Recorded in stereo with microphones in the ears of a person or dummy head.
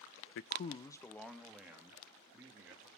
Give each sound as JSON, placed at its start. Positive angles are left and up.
{"t": 0.3, "sound": "a man speaking", "side_deg": 70, "distance_m": 0.6}